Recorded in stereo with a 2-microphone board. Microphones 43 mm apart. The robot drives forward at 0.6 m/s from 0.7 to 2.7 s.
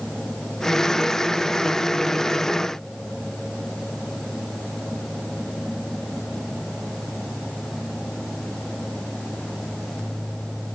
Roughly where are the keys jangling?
I don't hear keys jangling.